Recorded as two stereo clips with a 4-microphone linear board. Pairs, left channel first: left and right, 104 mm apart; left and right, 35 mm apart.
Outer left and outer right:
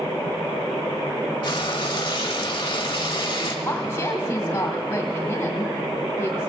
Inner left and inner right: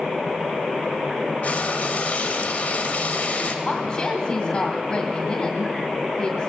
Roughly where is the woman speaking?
Left.